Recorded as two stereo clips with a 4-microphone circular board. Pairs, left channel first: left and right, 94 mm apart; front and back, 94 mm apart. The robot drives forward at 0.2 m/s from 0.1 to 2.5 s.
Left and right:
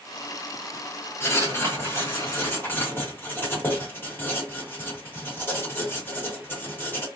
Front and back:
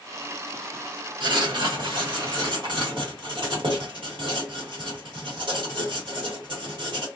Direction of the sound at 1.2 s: 150° left.